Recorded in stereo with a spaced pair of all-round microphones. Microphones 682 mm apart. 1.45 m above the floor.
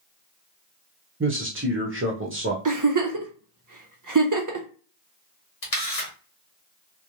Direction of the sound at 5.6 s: 75° left (ahead or behind).